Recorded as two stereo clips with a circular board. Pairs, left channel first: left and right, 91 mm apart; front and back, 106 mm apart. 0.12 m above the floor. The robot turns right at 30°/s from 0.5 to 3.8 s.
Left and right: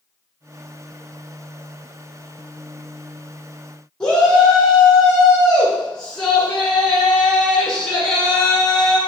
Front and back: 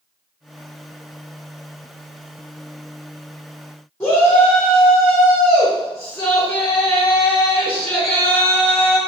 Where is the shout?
20° left, 1.1 m.